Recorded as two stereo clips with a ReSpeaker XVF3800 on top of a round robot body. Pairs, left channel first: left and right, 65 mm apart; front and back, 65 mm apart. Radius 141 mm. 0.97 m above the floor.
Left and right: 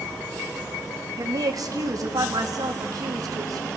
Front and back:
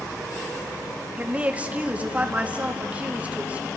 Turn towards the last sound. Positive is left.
turn(degrees=-110)